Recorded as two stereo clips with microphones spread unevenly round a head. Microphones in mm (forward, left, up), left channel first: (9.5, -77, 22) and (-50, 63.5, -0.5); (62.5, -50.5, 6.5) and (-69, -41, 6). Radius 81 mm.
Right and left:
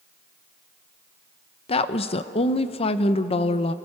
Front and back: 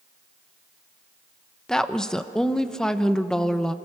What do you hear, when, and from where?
1.7 s a woman speaking: 85° right, 0.9 m